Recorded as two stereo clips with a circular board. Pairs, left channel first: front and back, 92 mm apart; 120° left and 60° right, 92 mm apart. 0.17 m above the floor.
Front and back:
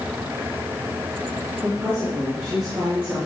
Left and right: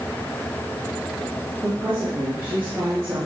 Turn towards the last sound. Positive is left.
turn(degrees=-120)